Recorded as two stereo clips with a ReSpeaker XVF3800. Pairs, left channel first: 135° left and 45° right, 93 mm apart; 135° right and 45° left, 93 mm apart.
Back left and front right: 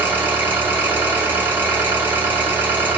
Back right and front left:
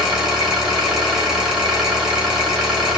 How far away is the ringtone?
No ringtone in this recording.